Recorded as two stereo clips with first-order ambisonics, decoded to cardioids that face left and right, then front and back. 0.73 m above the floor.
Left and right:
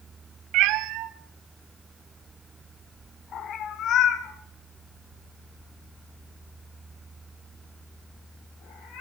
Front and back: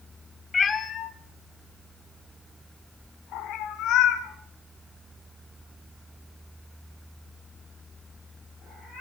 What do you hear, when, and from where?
0.5 s a cat meowing: 70° right, 1.0 m; by 9.0 s 55° left, 5 m